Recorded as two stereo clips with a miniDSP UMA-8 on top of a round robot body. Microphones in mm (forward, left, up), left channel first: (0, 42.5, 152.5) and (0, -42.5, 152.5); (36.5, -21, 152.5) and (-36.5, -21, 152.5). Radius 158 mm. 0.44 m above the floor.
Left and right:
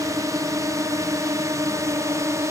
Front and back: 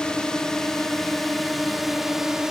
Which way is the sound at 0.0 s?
75° right.